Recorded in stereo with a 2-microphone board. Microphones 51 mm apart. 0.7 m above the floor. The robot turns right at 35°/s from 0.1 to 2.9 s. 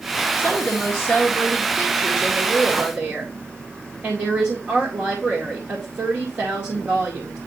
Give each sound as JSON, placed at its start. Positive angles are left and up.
{"t": 0.4, "sound": "a woman speaking", "azimuth_deg": 140, "distance_m": 1.9}